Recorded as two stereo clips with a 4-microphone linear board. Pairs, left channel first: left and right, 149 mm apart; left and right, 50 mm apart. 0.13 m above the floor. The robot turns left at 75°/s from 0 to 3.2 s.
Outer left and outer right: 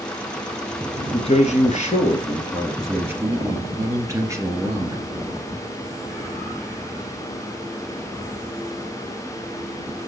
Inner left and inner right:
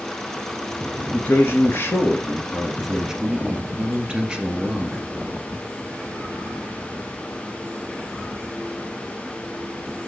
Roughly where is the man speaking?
Behind left.